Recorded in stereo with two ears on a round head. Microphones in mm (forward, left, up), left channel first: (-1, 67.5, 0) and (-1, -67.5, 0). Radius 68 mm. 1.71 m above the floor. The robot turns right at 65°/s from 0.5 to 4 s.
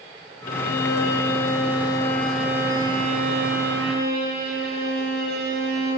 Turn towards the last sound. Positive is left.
turn(degrees=-70)